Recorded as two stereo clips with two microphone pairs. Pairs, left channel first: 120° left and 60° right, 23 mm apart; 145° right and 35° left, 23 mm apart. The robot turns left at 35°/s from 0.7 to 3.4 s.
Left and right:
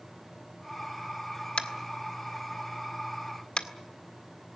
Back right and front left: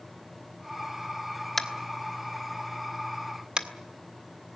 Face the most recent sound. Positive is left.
turn(degrees=80)